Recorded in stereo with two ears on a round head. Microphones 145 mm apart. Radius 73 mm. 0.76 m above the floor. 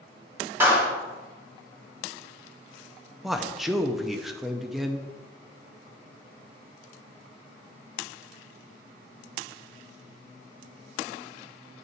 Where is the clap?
10° right (ahead or behind), 2.5 m.